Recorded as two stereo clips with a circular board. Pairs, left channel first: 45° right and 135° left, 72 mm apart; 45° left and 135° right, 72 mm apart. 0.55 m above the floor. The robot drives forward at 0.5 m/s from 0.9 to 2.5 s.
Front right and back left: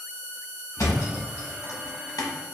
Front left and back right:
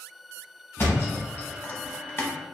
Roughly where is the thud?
Ahead.